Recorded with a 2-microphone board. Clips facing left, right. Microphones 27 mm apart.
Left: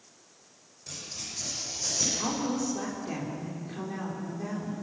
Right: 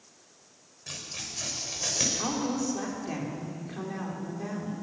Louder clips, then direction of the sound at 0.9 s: Right 1 dB; 80° right.